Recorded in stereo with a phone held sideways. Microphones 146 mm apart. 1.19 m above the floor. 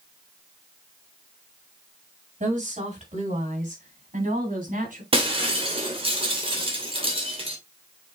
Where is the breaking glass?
40° right (ahead or behind), 2.5 m.